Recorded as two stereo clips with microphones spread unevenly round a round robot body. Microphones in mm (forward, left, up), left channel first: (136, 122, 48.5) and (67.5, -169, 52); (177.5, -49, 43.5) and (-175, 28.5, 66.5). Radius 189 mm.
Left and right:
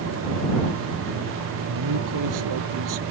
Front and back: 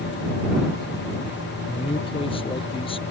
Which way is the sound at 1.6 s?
90° right.